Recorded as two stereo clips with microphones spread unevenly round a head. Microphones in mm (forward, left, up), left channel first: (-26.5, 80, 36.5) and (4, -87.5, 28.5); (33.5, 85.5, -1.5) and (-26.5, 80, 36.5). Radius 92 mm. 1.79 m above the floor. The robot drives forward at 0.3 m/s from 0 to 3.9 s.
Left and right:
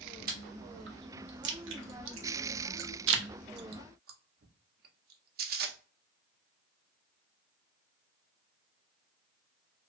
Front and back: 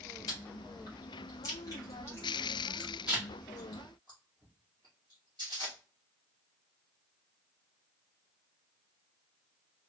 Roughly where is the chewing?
Ahead right.